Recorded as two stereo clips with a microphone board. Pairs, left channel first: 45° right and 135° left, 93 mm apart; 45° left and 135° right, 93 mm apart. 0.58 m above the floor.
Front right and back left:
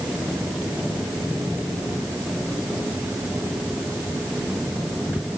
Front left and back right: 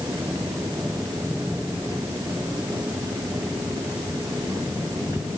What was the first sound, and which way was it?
Only background noise.